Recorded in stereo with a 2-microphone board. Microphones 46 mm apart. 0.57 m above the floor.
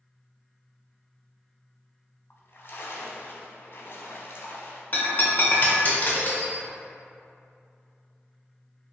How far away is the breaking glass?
About 1.0 m.